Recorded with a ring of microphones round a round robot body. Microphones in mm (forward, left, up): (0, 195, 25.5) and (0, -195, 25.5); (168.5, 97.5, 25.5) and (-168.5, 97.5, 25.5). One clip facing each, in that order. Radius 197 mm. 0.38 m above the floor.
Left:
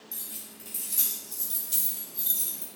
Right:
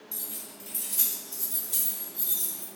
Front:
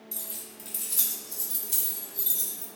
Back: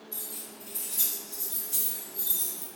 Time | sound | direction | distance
0.1 | keys jangling | 5° left | 1.5 m